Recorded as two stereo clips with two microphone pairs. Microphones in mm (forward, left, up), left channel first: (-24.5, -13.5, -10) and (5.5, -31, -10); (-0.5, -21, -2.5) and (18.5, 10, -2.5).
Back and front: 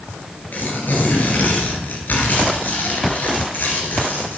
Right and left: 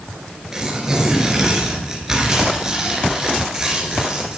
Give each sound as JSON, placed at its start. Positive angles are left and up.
{"t": 0.5, "sound": "tearing paper", "azimuth_deg": 135, "distance_m": 3.0}